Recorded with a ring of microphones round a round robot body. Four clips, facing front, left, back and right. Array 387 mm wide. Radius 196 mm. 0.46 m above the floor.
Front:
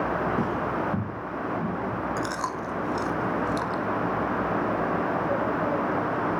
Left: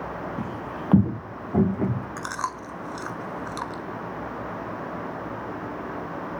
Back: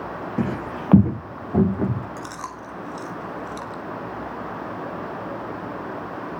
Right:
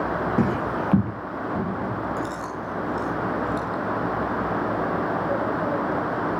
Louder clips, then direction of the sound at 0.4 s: Right 9 dB, even; 110° right.